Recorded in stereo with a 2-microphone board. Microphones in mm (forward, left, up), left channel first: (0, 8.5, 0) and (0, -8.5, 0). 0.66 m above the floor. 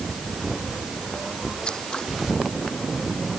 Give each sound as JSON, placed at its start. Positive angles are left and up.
{"t": 1.6, "sound": "scissors", "side_deg": 60}